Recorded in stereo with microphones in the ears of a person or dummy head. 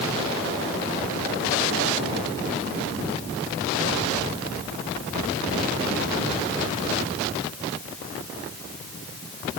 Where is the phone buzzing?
No phone buzzing in this recording.